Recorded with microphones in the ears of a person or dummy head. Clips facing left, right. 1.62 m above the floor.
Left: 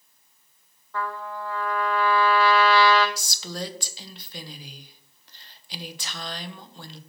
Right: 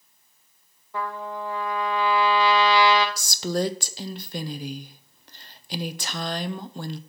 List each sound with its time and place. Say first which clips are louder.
0.9 s a trumpet: right 1 dB; 15° right (ahead or behind), 0.6 m
3.2 s a woman speaking: right 9 dB; 40° right (ahead or behind), 0.5 m